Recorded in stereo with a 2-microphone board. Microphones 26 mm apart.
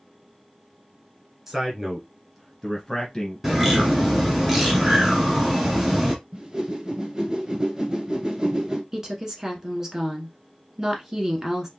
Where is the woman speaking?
20° right (ahead or behind), 1.1 m.